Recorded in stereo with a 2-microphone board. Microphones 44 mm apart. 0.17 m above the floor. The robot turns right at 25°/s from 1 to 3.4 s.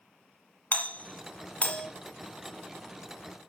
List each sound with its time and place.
0.7 s a doorbell: 35° left (ahead or behind), 1.7 m; by 1.9 s 30° left (ahead or behind), 1.7 m